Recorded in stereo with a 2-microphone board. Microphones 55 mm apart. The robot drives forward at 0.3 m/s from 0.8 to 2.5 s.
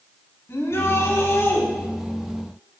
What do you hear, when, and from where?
0.5 s a shout: 55° left (ahead or behind), 4 m; by 1.6 s 50° left (ahead or behind), 4 m